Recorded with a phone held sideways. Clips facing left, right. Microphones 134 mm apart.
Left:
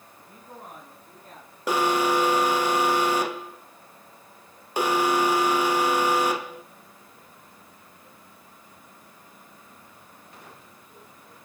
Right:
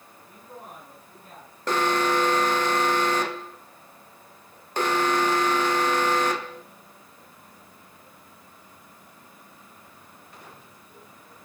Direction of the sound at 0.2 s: 35° left (ahead or behind).